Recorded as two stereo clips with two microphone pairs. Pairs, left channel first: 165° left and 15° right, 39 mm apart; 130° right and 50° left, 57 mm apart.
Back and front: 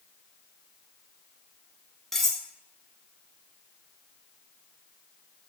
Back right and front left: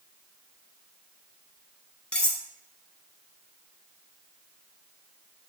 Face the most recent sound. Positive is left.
turn(degrees=-130)